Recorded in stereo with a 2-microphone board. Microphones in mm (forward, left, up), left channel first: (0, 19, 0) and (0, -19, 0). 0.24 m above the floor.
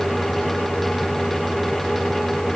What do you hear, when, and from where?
Only background noise.